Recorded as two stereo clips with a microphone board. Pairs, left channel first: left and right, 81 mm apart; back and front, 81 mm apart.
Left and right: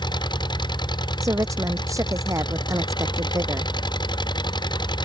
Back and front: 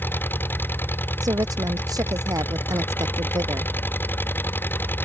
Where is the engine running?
115° left.